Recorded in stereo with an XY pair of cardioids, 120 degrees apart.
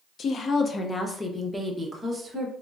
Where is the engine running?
No engine running in this recording.